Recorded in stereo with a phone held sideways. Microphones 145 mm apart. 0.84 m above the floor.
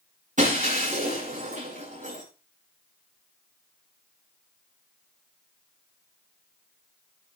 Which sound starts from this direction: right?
Breaking glass, at 0.4 s.